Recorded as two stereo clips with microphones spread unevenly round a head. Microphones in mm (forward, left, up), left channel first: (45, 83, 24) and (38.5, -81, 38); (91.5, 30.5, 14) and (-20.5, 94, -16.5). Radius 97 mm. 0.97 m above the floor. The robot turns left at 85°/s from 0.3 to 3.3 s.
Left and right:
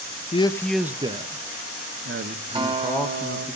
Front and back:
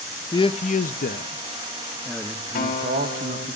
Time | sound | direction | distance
0.3 | a man speaking | 40° left | 0.9 m
2.5 | a guitar | 30° right | 4.5 m